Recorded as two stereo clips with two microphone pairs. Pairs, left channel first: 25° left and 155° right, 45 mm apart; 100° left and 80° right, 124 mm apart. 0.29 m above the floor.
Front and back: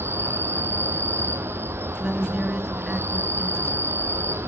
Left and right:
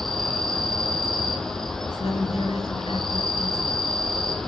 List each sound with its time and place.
0.0 s an insect: 175° right, 1.6 m
2.0 s a woman speaking: 130° left, 4 m